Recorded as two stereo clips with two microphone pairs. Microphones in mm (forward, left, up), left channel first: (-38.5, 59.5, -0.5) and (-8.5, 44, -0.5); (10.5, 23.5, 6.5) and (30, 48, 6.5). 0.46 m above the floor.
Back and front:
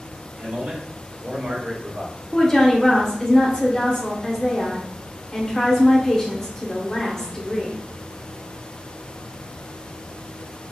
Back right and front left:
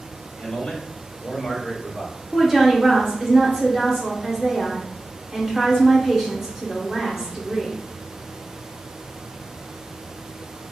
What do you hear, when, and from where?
0.4 s a man speaking: 70° right, 1.9 m; by 2.3 s 30° right, 1.4 m
2.3 s a woman speaking: 110° left, 0.8 m